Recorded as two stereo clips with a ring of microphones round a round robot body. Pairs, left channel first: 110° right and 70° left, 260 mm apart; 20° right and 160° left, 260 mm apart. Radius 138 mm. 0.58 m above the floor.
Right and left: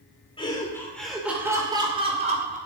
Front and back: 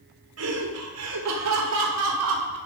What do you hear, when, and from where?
0.4 s laughter: straight behind, 2 m; by 2.6 s 130° left, 3 m